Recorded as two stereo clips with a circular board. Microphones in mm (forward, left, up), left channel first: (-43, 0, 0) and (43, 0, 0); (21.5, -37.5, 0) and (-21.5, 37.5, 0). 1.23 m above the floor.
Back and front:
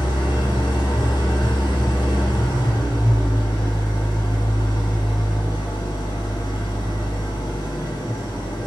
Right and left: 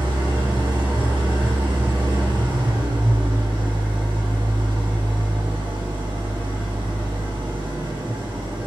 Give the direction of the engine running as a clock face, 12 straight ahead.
7 o'clock.